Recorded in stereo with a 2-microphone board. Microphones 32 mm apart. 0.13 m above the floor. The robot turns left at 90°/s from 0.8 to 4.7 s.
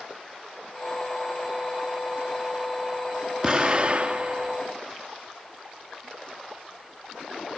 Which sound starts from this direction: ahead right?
An explosion, at 3.4 s.